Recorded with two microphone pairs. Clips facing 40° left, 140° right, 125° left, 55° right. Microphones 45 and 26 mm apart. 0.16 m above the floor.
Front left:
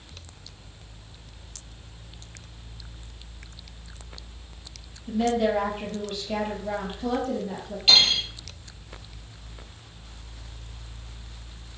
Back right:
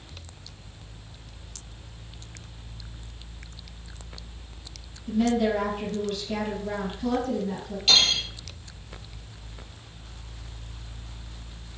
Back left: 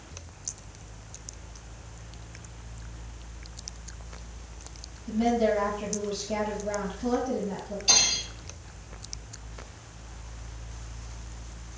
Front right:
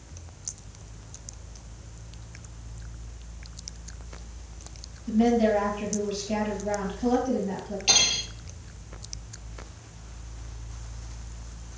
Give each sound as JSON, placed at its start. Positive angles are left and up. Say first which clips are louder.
{"t": 5.1, "sound": "a woman speaking", "louder": "even, front right 3 dB", "azimuth_deg": -35, "distance_m": 3.0}
{"t": 7.9, "sound": "cutlery clinking", "louder": "front left 2 dB, front right 1 dB", "azimuth_deg": -25, "distance_m": 2.5}